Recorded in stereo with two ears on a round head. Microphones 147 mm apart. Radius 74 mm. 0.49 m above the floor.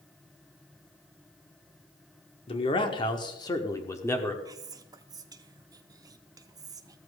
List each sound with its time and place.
2.5 s a man speaking: 35° left (ahead or behind), 1.4 m; by 4.3 s 15° left (ahead or behind), 1.4 m
4.5 s whispering: 20° right (ahead or behind), 0.7 m